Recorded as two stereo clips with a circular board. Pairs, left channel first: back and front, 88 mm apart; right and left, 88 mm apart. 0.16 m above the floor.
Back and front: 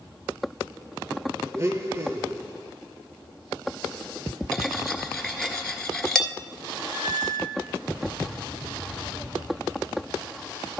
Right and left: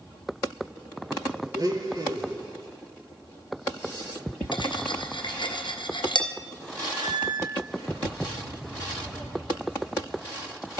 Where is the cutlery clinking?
95° right, 1.5 m.